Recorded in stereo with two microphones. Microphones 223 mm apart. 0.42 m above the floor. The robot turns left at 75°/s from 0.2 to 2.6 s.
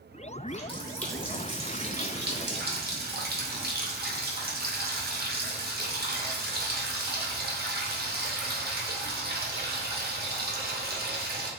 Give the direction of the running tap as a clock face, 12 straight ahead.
10 o'clock.